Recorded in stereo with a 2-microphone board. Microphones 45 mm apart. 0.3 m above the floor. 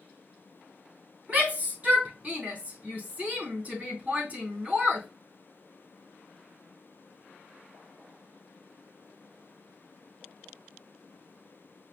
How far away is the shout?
About 3 m.